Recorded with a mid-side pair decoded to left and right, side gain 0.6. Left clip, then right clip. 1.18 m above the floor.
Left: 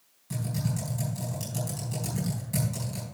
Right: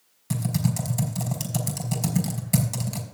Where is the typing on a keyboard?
50° right, 4.5 m.